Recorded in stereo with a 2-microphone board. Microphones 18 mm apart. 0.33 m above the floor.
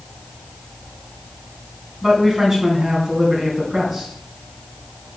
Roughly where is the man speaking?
Centre.